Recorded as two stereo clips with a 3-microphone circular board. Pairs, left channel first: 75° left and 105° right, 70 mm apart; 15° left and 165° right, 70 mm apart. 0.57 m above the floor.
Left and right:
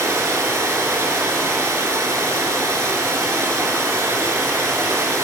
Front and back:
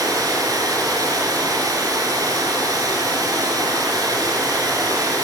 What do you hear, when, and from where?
0.0 s running water: 145° right, 1.2 m